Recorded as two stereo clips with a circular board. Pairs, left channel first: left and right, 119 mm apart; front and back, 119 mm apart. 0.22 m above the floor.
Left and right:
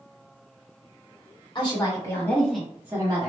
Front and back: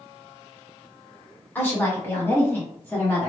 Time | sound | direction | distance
1.6 | a woman speaking | 65° left | 1.4 m